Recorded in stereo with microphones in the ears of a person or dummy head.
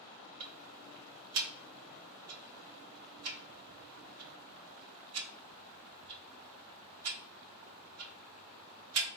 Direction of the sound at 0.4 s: 70° right (ahead or behind).